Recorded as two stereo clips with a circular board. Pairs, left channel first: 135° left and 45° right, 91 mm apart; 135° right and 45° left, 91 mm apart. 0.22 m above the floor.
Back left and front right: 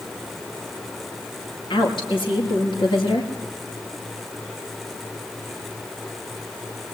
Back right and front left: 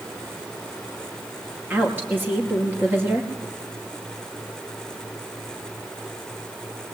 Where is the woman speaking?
110° left, 4.5 m.